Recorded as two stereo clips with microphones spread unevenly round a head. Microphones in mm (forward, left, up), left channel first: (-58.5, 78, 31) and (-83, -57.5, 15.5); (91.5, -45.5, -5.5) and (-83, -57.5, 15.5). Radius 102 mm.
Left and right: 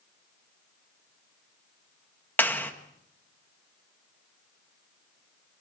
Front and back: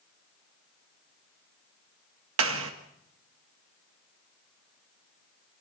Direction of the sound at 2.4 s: 155° left.